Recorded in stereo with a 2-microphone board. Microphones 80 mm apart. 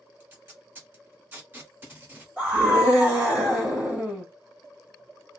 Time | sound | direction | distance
0.2 | tape being pulled | 25° right (ahead or behind) | 1.4 m
2.4 | a scream | 15° right (ahead or behind) | 1.7 m